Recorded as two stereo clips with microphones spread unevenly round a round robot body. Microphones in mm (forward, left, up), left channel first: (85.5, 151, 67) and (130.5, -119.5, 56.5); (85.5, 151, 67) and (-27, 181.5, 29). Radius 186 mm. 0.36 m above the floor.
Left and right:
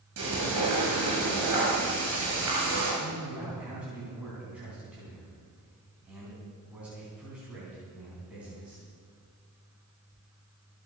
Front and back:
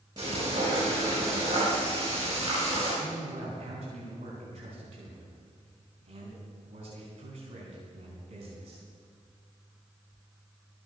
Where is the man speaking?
165° right, 4 m.